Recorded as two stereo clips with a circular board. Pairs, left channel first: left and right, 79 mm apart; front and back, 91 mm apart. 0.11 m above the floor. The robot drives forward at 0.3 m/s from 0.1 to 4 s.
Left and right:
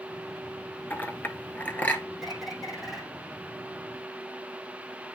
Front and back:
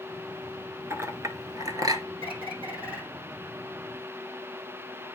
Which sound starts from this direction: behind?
A bird, at 2.2 s.